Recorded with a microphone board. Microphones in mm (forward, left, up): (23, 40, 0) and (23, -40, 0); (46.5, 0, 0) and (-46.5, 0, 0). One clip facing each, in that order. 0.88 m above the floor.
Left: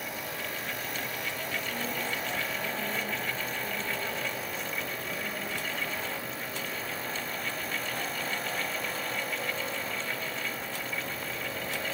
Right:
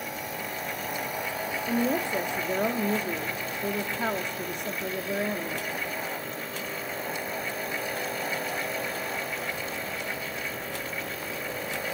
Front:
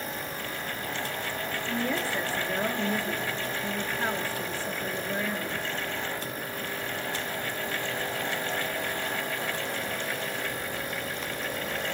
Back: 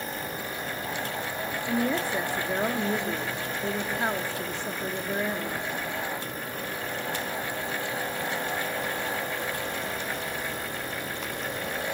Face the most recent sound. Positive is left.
turn(degrees=-110)